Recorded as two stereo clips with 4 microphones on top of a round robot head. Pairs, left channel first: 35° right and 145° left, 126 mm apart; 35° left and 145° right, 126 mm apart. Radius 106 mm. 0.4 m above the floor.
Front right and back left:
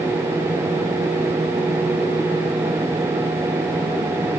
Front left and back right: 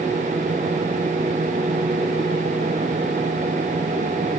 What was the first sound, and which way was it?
Only background noise.